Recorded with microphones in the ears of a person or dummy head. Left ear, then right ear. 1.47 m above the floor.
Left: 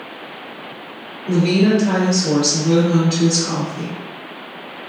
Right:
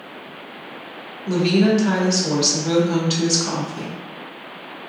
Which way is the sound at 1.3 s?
60° right (ahead or behind).